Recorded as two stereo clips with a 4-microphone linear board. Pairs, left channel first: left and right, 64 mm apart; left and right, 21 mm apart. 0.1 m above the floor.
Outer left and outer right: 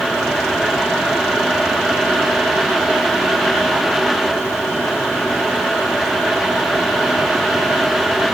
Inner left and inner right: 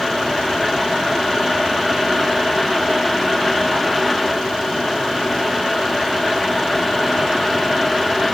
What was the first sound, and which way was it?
Only background noise.